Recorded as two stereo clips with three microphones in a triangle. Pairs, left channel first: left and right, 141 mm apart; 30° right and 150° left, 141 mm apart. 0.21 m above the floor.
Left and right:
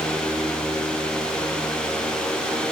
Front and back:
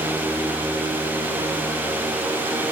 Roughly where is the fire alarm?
I don't hear a fire alarm.